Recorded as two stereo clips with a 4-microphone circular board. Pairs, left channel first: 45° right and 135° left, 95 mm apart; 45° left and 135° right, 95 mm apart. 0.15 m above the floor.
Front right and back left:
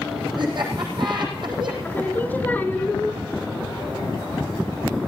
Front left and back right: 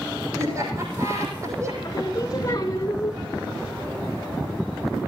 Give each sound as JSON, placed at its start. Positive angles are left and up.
{"t": 0.4, "sound": "laughter", "azimuth_deg": 170, "distance_m": 6.5}
{"t": 1.8, "sound": "singing", "azimuth_deg": 20, "distance_m": 1.5}